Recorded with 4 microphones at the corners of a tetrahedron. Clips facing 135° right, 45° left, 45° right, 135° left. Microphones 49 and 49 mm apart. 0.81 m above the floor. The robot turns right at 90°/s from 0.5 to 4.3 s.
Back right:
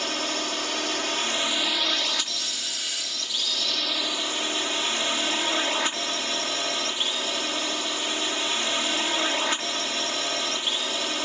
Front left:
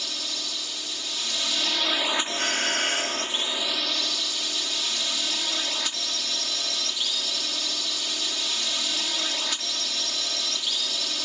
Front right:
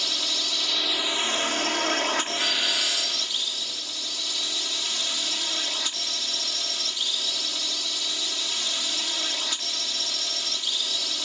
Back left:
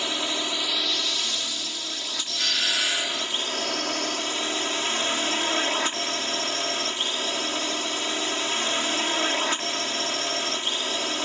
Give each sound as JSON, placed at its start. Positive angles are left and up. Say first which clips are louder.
{"t": 0.0, "sound": "a drone", "louder": "back right 7 dB, back left 3 dB", "azimuth_deg": -165}
{"t": 2.4, "sound": "a doorbell", "louder": "front left 8 dB, even", "azimuth_deg": 30}